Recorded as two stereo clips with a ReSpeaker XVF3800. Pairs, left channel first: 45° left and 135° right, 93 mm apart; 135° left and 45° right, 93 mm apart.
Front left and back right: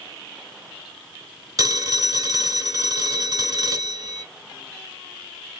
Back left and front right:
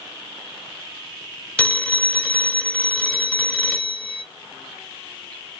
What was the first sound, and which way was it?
A phone ringing, 155° right.